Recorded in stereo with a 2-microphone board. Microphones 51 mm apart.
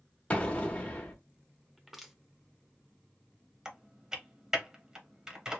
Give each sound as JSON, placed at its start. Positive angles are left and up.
{"t": 0.3, "sound": "an explosion", "side_deg": 25, "distance_m": 1.0}
{"t": 1.8, "sound": "crushing", "side_deg": -5, "distance_m": 0.7}
{"t": 3.6, "sound": "typing on a keyboard", "side_deg": -15, "distance_m": 0.8}